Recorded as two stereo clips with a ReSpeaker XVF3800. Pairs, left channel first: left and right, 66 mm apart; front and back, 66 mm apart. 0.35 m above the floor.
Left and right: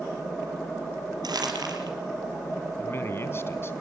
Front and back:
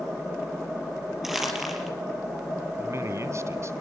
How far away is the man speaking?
About 2.5 m.